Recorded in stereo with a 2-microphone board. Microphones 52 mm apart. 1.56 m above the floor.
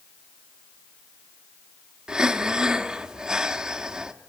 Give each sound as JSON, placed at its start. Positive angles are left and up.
{"t": 2.1, "sound": "breathing", "side_deg": -15, "distance_m": 1.3}